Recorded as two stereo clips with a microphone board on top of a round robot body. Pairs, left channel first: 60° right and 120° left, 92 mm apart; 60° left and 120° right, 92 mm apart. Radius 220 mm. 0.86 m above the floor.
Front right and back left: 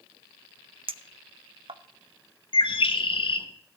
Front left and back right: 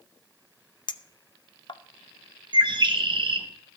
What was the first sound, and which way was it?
A clink, 95° left.